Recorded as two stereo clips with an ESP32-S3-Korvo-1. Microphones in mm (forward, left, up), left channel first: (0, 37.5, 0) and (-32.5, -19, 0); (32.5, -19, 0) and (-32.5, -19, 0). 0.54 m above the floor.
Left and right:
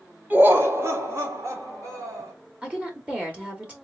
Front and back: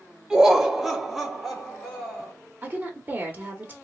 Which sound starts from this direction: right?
Laughter, at 0.3 s.